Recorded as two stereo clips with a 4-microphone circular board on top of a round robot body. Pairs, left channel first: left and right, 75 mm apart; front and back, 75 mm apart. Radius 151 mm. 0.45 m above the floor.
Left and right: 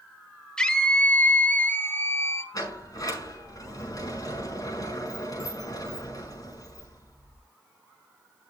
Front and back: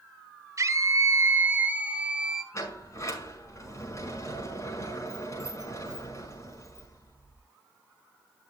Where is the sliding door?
45° left, 5.5 m.